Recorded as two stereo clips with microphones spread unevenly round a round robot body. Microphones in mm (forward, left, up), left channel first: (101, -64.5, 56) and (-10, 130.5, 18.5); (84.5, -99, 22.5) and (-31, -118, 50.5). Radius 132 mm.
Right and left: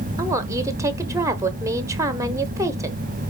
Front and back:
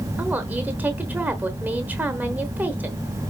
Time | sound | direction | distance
0.2 | a woman speaking | 100° left | 0.9 m